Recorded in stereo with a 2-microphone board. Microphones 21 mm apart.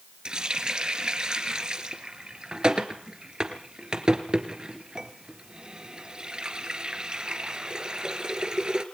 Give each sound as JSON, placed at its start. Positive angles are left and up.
{"t": 0.2, "sound": "a running tap", "side_deg": -40, "distance_m": 2.5}